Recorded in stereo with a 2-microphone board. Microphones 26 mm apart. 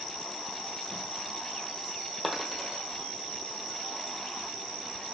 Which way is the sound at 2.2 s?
5° left (ahead or behind).